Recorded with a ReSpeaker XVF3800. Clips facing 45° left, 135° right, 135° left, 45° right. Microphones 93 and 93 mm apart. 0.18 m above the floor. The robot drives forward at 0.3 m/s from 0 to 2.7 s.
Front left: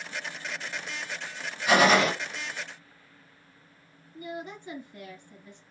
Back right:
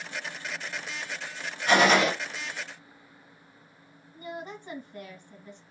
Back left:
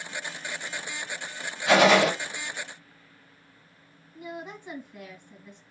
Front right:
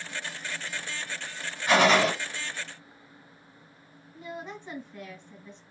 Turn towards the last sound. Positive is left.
turn(degrees=-150)